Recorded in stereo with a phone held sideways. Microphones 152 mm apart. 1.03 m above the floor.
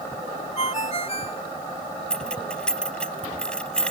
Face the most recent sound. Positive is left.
turn(degrees=5)  # may be behind; listen again after turning